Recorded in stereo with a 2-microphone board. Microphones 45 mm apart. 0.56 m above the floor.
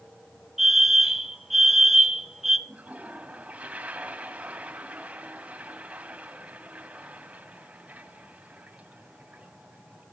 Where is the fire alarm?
5° right (ahead or behind), 1.6 m.